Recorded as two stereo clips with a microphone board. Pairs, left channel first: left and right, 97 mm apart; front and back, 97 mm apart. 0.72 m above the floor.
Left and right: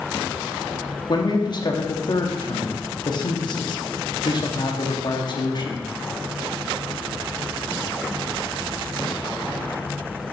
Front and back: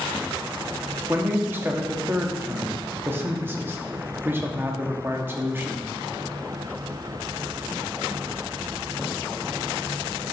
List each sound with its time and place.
1.1 s a man speaking: 115° left, 1.2 m